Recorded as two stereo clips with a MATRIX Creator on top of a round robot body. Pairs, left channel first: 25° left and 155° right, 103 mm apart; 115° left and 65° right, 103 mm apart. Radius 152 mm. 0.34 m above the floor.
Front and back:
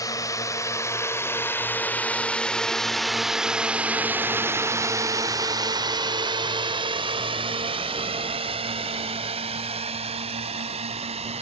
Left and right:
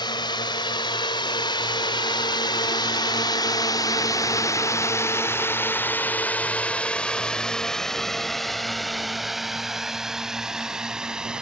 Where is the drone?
75° left; by 11.4 s 150° right.